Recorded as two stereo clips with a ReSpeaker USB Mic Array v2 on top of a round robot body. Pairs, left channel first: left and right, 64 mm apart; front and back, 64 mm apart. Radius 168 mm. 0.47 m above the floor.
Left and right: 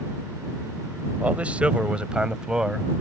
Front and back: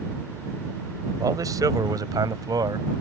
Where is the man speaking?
155° right; by 3.0 s 170° right.